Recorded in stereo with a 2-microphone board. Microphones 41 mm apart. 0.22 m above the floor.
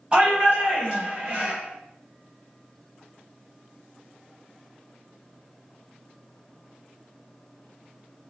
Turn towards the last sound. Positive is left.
turn(degrees=-20)  # may be behind; listen again after turning